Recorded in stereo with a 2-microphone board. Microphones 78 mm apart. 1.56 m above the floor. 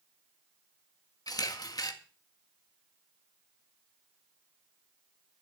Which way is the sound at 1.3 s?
55° left (ahead or behind).